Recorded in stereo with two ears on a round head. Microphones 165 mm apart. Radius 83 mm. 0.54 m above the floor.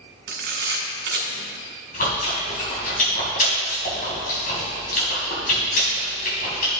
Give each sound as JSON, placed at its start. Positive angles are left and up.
{"t": 0.3, "sound": "a camera shutter", "side_deg": -60, "distance_m": 2.0}
{"t": 1.9, "sound": "chewing", "side_deg": 50, "distance_m": 3.0}